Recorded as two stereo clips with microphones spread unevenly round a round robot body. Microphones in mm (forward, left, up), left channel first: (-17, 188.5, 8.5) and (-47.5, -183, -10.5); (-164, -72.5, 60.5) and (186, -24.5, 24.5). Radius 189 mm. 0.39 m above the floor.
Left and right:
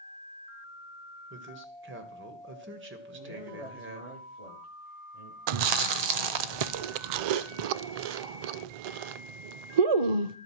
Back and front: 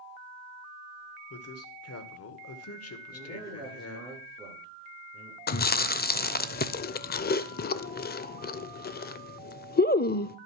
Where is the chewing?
105° right, 0.6 m.